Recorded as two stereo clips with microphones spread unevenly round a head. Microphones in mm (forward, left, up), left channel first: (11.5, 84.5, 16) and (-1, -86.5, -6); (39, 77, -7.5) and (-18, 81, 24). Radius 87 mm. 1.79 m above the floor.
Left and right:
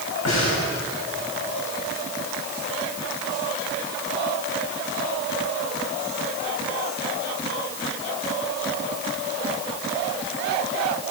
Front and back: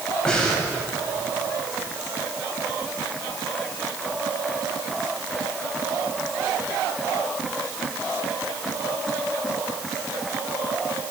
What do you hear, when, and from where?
0.2 s breathing: 75° left, 9 m